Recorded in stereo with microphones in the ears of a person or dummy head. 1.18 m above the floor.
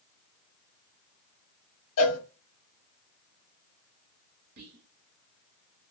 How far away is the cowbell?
About 0.9 m.